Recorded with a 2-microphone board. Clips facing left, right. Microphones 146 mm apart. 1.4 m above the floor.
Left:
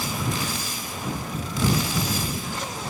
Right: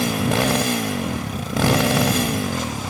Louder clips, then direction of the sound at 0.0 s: Right 9 dB; 75° right (ahead or behind).